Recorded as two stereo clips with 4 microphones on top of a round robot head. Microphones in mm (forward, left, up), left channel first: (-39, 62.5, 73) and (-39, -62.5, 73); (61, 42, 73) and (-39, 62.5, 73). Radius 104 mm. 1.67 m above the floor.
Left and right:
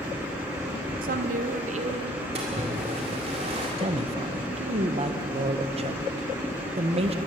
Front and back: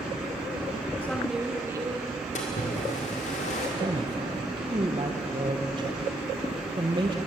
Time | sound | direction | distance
1.0 | a woman speaking | 90° right | 1.2 m
2.4 | a splash | 35° right | 2 m
3.8 | a man speaking | 135° right | 1.7 m